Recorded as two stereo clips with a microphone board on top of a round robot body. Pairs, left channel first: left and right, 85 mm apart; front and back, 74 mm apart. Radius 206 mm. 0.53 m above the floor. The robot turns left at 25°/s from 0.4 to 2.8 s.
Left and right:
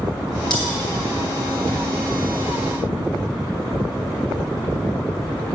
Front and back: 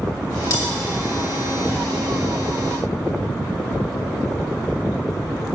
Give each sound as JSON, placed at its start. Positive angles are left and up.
{"t": 0.5, "sound": "cutlery clinking", "azimuth_deg": 55, "distance_m": 2.5}